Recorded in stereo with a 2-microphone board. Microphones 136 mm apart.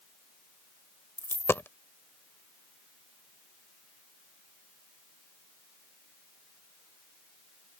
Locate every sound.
1.2 s a dropped coin: 20° left (ahead or behind)